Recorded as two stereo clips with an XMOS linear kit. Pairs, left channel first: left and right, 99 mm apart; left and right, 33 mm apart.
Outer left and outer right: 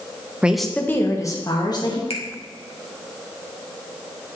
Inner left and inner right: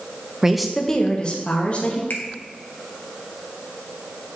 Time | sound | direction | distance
0.4 | a woman speaking | 15° right (ahead or behind) | 0.7 m
2.1 | a finger snap | 75° left (ahead or behind) | 1.4 m